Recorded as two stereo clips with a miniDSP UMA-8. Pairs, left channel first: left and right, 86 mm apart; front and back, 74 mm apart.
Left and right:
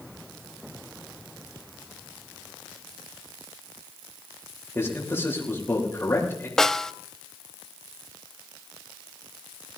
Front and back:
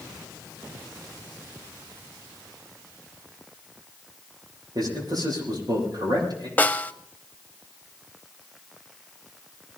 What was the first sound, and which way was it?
A man speaking, 150° left.